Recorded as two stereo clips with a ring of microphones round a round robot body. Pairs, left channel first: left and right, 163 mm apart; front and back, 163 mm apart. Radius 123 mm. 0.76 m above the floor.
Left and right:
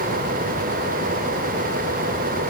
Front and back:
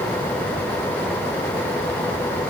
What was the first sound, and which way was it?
Only background noise.